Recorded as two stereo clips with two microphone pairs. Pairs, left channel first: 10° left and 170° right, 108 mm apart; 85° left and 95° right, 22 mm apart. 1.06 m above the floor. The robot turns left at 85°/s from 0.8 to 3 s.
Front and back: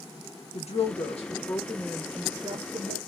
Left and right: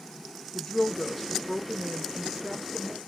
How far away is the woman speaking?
About 0.7 m.